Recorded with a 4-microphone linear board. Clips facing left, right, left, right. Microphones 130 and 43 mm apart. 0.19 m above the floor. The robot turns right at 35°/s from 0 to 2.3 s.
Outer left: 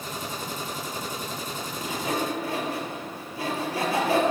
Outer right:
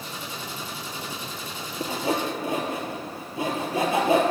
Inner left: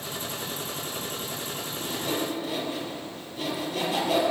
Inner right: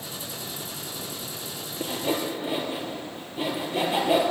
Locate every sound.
1.8 s sawing: 40° right (ahead or behind), 3 m; by 4.2 s 20° right (ahead or behind), 3 m